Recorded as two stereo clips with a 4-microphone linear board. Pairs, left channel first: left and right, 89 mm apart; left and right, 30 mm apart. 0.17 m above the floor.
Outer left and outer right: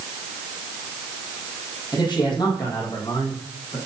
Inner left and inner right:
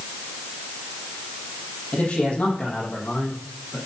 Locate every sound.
1.9 s a man speaking: 55° left (ahead or behind), 4.5 m